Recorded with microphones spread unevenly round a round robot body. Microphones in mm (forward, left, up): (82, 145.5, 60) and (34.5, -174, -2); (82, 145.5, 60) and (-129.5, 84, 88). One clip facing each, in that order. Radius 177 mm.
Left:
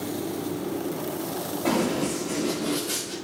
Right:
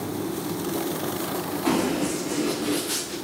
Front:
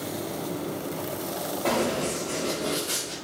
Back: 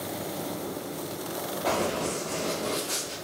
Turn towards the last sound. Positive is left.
turn(degrees=-15)